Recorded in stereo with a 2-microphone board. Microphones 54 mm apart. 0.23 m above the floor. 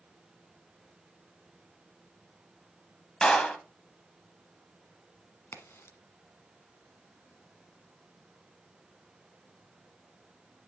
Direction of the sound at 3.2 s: 15° left (ahead or behind).